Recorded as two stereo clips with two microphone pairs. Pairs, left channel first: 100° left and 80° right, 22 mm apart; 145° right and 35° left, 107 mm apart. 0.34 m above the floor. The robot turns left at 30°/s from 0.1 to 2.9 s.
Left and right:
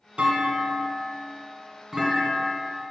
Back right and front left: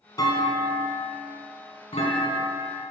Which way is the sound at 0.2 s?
95° right.